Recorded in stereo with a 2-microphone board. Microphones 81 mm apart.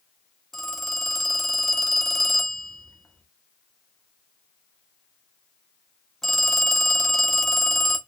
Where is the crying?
No crying in this recording.